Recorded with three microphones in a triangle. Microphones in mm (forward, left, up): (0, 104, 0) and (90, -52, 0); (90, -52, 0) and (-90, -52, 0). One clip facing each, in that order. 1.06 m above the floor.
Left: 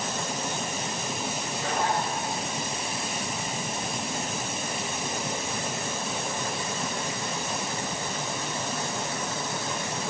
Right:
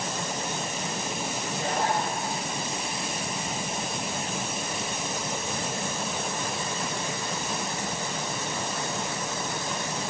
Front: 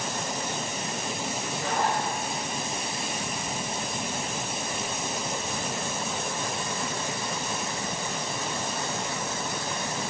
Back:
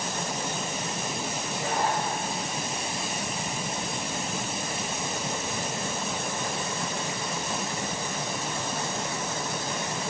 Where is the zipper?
110° right, 3.5 m.